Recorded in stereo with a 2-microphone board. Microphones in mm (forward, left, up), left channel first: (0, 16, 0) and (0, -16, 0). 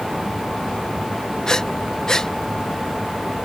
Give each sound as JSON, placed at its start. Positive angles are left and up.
{"t": 1.5, "sound": "breathing", "side_deg": 20}